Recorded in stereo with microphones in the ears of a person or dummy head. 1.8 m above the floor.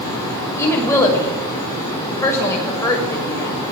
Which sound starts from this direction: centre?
A woman speaking, at 0.6 s.